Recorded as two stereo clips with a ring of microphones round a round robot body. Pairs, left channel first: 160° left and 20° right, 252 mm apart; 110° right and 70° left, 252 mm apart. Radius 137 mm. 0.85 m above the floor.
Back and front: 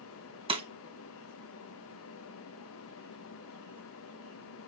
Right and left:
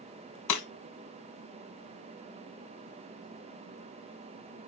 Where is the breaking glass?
90° right, 1.8 m.